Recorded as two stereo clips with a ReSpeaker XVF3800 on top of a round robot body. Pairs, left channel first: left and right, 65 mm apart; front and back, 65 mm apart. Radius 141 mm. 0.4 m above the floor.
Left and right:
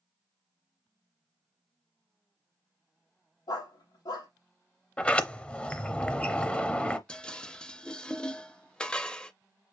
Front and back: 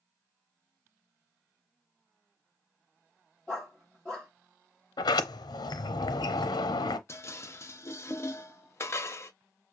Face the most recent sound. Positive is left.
turn(degrees=20)